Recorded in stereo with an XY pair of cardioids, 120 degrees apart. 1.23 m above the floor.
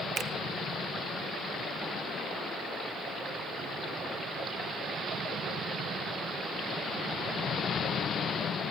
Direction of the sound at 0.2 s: 45° right.